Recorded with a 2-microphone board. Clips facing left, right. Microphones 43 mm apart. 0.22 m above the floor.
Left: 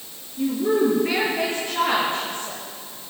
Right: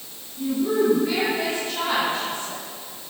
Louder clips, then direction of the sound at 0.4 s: Left 1 dB; 45° left (ahead or behind).